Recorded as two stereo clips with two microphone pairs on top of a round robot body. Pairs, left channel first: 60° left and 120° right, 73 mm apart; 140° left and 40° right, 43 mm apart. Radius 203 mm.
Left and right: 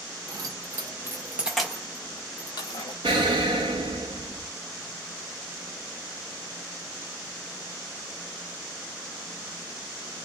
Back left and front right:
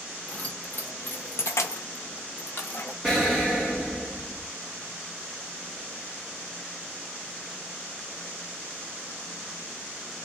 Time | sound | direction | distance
0.3 | keys jangling | 160° right | 1.0 m
3.0 | an explosion | 135° right | 0.6 m